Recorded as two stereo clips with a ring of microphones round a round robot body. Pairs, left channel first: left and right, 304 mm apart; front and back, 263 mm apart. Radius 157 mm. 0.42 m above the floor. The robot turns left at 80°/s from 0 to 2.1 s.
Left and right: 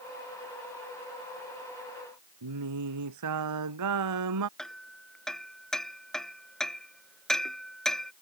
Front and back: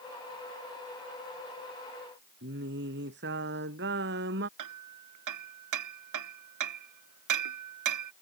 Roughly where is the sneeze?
I don't hear a sneeze.